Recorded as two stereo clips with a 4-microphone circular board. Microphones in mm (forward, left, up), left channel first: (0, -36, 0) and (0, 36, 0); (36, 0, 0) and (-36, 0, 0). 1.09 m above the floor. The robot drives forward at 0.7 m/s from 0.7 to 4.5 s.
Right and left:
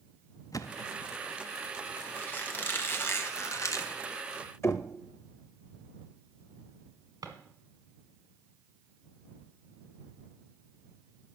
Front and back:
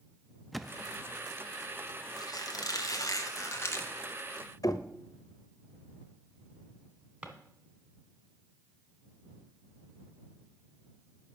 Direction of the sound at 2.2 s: 25° right.